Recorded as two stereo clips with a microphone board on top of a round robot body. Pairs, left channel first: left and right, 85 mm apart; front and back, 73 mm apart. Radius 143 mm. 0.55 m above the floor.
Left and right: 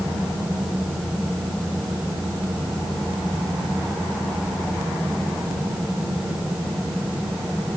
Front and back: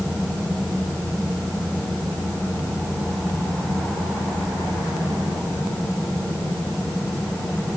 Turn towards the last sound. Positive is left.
No sound to turn to.